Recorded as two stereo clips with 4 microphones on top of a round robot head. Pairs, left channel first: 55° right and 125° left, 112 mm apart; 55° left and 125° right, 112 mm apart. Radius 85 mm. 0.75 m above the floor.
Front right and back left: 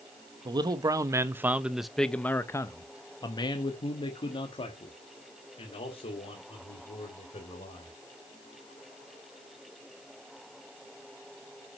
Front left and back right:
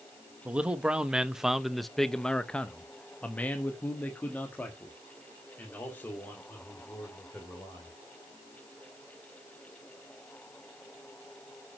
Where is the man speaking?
160° left, 1.0 m; by 8.0 s 20° right, 3.5 m.